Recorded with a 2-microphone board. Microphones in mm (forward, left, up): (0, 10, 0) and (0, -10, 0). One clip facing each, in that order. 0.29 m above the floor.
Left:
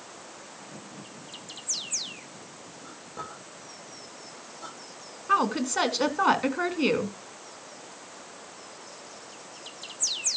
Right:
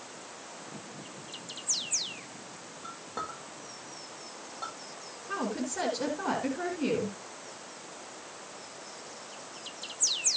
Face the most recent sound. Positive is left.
turn(degrees=55)  # may be behind; listen again after turning